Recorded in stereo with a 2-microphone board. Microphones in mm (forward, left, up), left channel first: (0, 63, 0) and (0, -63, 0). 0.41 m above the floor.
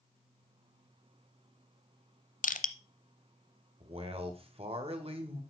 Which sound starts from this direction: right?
A man speaking, at 3.8 s.